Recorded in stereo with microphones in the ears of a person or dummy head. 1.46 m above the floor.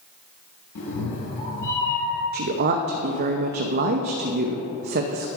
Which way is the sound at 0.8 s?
55° left (ahead or behind).